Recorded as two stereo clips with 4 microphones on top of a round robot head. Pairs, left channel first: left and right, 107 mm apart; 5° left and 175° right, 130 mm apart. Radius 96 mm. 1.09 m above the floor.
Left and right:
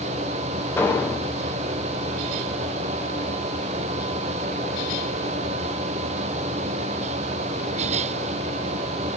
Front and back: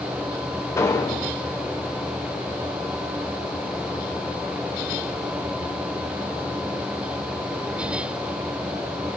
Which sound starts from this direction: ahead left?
An explosion, at 0.8 s.